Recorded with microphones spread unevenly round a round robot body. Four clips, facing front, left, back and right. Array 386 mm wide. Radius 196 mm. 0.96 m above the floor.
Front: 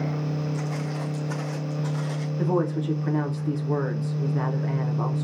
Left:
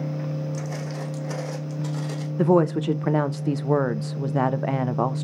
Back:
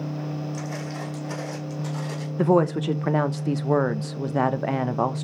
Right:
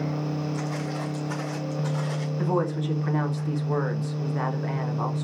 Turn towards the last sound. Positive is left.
turn(degrees=140)